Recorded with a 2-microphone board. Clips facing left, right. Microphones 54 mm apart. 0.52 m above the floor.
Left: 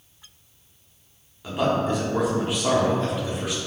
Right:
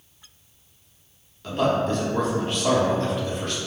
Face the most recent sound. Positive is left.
turn(degrees=10)  # may be behind; listen again after turning